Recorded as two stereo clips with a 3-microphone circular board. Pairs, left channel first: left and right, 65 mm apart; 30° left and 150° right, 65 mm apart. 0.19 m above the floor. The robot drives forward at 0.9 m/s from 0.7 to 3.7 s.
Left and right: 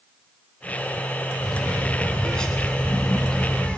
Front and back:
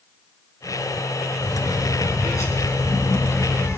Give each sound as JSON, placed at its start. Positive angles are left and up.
{"t": 1.4, "sound": "a bird", "azimuth_deg": 10, "distance_m": 4.0}